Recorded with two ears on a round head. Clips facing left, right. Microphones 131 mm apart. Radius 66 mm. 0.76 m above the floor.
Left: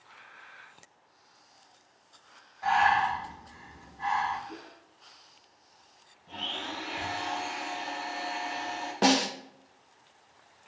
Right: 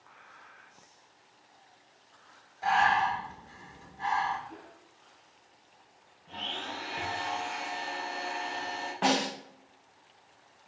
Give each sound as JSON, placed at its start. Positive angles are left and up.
{"t": 2.6, "sound": "breathing", "side_deg": -30, "distance_m": 1.3}
{"t": 4.5, "sound": "a whoosh", "side_deg": 50, "distance_m": 1.4}
{"t": 6.3, "sound": "a blender", "side_deg": 10, "distance_m": 1.8}
{"t": 9.0, "sound": "a snare drum", "side_deg": 45, "distance_m": 0.6}